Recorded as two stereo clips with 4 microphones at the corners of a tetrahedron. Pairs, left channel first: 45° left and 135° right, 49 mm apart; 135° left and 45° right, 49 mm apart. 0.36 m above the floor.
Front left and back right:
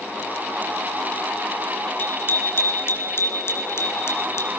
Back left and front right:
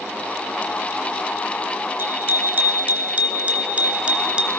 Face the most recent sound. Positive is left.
turn(degrees=25)